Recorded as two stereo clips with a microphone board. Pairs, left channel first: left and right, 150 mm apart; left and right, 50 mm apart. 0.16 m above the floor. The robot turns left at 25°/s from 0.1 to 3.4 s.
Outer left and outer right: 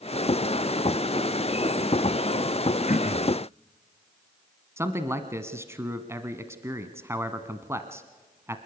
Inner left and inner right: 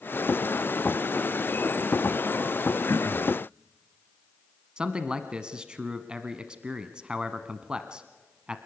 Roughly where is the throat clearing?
Left.